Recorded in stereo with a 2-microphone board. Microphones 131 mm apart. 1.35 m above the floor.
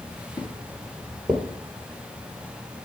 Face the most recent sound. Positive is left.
turn(degrees=-10)  # may be behind; listen again after turning